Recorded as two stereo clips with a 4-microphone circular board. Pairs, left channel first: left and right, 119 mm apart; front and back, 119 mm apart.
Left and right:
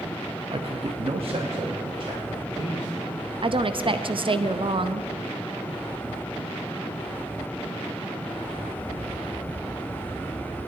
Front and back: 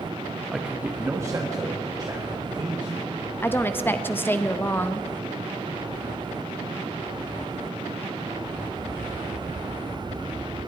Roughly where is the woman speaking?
Ahead right.